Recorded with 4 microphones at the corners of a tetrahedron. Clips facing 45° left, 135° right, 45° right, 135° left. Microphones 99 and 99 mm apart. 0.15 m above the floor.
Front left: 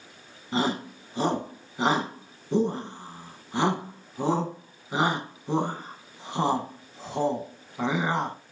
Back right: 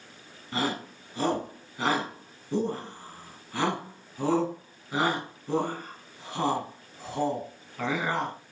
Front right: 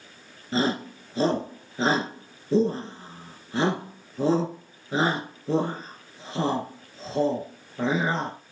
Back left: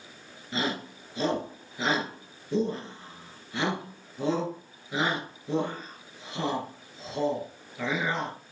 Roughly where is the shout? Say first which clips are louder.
Front left 3 dB, front right 6 dB; ahead.